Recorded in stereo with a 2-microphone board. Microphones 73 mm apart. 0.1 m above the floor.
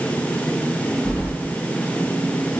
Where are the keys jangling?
5° left (ahead or behind), 6.5 m.